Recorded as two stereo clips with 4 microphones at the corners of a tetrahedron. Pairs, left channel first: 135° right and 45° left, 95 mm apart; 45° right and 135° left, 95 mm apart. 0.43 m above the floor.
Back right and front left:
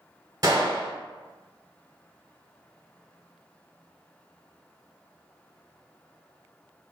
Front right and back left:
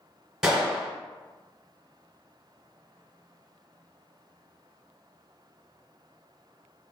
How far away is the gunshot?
About 1.2 m.